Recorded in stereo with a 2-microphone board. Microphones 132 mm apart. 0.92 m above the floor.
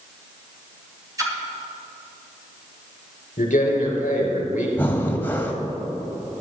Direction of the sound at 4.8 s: 15° left (ahead or behind).